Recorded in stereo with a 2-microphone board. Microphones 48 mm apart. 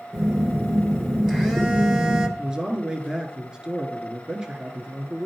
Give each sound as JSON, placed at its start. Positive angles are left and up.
{"t": 0.1, "sound": "a phone buzzing", "side_deg": -10, "distance_m": 1.6}
{"t": 2.4, "sound": "a man speaking", "side_deg": -15, "distance_m": 1.1}